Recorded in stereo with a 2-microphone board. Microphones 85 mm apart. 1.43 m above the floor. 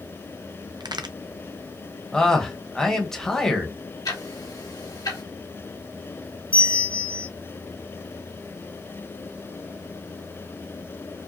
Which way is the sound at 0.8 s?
60° right (ahead or behind).